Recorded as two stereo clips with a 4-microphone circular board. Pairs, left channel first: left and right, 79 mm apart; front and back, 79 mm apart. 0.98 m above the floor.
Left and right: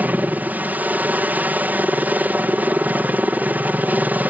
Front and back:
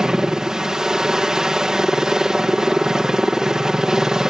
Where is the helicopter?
110° right.